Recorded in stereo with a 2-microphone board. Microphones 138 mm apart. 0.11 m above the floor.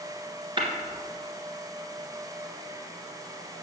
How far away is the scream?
No scream in this recording.